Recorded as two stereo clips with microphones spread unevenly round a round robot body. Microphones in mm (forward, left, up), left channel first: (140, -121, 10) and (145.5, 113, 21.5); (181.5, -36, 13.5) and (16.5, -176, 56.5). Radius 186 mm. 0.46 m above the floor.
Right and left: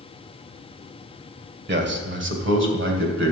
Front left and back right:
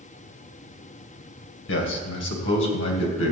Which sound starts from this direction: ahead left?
A man speaking, at 1.7 s.